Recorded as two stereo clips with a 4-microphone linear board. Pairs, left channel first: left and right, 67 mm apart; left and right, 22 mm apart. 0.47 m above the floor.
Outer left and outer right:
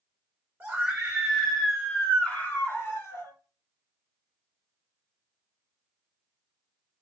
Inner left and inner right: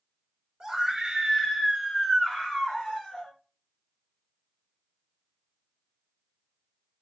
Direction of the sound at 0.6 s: 25° right (ahead or behind).